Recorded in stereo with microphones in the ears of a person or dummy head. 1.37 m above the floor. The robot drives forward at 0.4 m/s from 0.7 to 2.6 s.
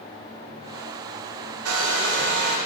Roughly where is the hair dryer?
Right.